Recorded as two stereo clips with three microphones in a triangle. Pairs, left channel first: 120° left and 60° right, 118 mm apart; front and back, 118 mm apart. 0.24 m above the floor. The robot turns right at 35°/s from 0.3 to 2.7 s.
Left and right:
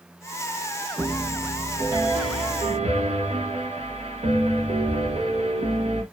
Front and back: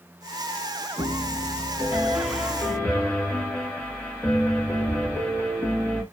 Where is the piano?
135° right, 1.2 m; by 6.0 s 75° right, 1.2 m.